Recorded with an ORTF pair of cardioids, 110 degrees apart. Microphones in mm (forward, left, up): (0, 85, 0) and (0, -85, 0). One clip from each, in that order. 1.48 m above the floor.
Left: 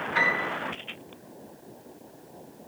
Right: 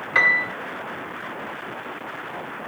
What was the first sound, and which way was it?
A piano, 65° right.